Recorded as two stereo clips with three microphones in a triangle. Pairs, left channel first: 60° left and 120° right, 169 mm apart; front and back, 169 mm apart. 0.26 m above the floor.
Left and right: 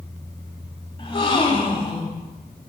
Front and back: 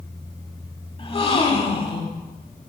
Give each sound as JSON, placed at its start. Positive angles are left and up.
{"t": 1.0, "sound": "a gasp", "azimuth_deg": 25, "distance_m": 0.7}